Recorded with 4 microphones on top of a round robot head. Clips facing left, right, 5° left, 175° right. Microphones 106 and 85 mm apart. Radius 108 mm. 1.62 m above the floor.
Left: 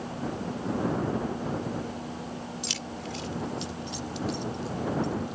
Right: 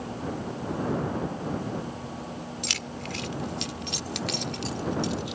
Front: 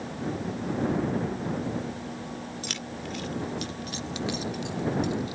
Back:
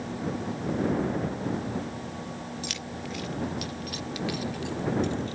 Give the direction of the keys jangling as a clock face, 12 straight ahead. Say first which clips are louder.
Right 1 dB, even; 2 o'clock.